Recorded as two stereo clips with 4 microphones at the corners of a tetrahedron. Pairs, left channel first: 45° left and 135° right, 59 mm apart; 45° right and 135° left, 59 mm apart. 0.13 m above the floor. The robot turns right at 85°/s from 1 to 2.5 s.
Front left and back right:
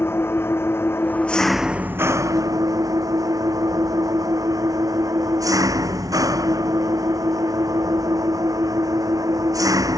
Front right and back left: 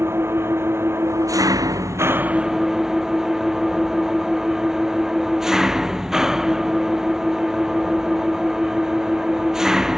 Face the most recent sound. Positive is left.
turn(degrees=-140)